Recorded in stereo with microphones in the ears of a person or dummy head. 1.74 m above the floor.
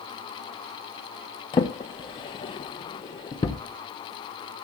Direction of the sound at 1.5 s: 25° left (ahead or behind).